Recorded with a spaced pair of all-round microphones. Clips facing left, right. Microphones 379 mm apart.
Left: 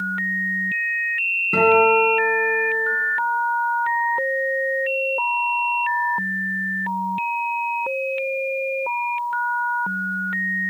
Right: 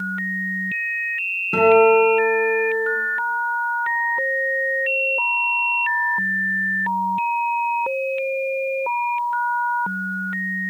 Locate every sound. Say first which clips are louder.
1.5 s a guitar: right 3 dB; 5° left (ahead or behind), 3 m